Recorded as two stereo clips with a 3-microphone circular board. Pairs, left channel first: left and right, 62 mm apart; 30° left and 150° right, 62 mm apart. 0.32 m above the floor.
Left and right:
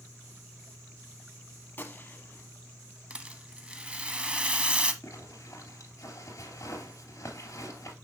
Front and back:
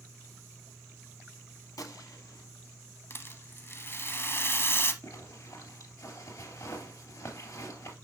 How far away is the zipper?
About 3 m.